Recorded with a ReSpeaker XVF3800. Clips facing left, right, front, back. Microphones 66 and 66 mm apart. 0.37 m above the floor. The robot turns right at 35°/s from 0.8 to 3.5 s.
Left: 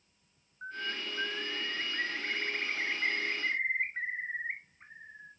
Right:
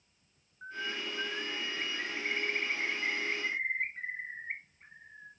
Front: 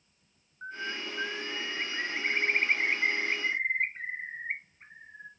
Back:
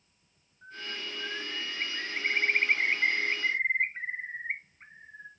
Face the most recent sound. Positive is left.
turn(degrees=105)